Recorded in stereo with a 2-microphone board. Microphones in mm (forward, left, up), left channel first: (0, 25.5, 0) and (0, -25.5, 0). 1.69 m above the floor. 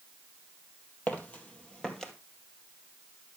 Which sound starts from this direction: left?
Footsteps, at 1.1 s.